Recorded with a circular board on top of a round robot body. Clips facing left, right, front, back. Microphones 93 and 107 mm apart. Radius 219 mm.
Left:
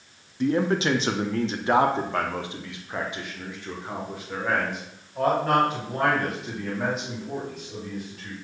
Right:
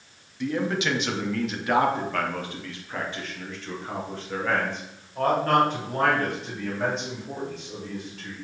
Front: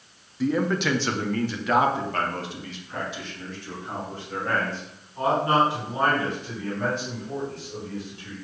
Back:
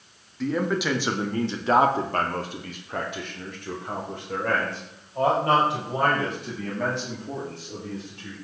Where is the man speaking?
80° left, 1.1 m; by 8.3 s 175° left, 4 m.